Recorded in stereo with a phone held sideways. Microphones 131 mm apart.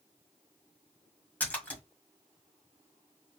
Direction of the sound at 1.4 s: 10° left (ahead or behind).